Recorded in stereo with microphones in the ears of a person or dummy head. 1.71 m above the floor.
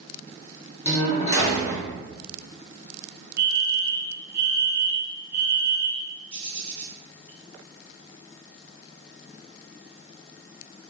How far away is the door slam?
About 0.9 m.